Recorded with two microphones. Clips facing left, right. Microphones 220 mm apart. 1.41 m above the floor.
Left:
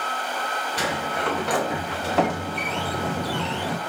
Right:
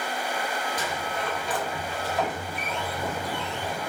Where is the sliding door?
75° left (ahead or behind), 0.6 m.